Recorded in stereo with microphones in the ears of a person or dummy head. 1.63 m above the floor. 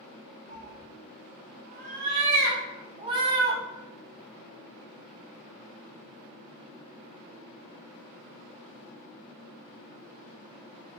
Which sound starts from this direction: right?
A cat meowing, at 0.5 s.